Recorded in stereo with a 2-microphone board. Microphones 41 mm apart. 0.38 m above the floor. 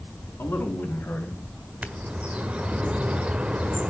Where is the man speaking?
50° left (ahead or behind), 4 m; by 1.4 s 35° left (ahead or behind), 3.5 m.